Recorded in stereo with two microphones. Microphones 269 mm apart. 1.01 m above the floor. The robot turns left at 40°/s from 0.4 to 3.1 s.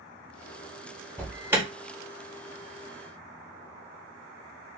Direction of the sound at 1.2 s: 5° left (ahead or behind).